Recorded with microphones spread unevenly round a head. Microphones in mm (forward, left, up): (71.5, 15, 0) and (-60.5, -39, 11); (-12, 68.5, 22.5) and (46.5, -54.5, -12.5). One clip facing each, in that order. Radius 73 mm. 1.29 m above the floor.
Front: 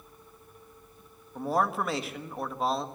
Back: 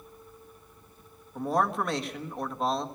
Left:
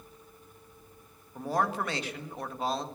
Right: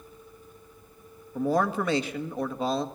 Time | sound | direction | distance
1.4 | a man speaking | 65° right | 1.6 m